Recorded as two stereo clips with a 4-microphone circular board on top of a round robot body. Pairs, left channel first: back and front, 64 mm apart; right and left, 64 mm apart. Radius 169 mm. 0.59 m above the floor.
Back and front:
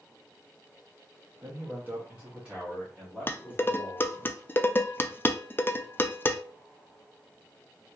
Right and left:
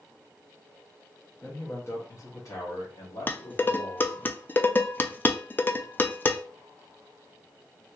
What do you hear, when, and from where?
1.4 s a man speaking: 40° right, 1.2 m; by 4.3 s 95° right, 2 m
3.3 s dishes clattering: 135° right, 0.6 m